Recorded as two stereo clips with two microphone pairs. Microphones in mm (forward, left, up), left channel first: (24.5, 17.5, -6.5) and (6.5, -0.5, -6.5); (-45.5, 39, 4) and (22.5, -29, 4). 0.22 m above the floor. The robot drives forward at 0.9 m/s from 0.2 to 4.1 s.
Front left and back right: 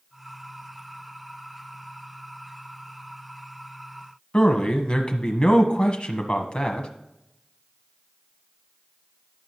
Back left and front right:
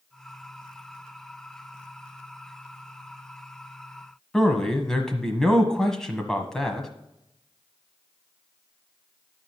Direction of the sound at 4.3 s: 55° left.